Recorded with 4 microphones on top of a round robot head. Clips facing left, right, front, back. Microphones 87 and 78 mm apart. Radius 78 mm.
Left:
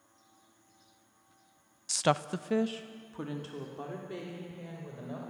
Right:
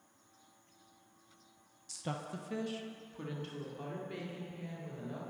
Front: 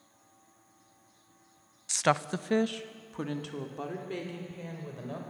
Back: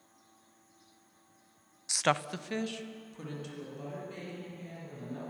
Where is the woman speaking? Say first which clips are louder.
Left 13 dB, front 3 dB; 105° left, 0.6 m; by 5.2 s 20° left, 4.5 m.